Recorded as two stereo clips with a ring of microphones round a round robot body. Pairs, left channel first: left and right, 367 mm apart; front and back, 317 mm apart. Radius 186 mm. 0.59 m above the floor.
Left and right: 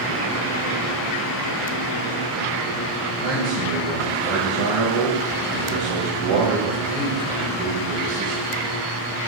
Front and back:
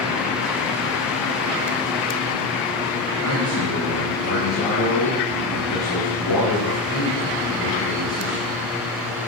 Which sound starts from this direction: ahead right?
A man speaking, at 3.2 s.